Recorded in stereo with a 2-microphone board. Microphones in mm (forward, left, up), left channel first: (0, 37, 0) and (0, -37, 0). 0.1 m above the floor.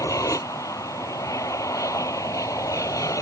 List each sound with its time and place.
0.0 s an aircraft: 45° left (ahead or behind)